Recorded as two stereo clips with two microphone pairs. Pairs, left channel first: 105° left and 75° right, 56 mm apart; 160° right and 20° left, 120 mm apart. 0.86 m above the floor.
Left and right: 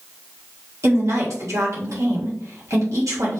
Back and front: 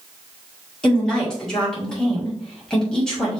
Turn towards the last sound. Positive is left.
turn(degrees=-75)